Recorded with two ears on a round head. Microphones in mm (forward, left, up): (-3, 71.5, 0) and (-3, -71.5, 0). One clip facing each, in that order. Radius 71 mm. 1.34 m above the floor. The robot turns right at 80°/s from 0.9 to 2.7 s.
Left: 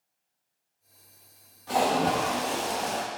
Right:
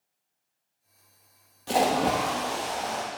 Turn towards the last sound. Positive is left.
turn(degrees=45)